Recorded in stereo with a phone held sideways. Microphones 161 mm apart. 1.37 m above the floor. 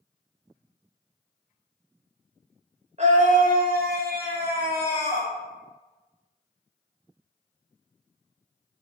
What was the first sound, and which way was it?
A scream, 45° right (ahead or behind).